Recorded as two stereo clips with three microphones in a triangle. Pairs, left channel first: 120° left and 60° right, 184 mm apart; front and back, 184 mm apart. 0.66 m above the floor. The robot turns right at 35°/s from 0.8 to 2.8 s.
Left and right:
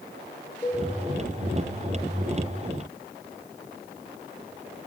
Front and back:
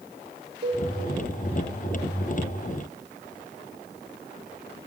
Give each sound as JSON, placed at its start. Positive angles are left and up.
{"t": 0.6, "sound": "a cowbell", "azimuth_deg": -160, "distance_m": 2.5}